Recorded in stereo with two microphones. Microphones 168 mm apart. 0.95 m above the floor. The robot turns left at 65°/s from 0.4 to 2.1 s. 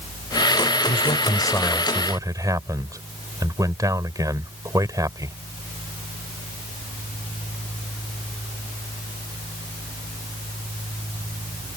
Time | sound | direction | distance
0.9 | a man speaking | 60° left | ?